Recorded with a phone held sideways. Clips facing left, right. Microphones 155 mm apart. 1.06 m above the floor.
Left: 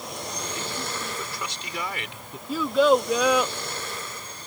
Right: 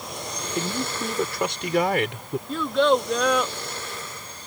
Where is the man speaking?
60° right (ahead or behind).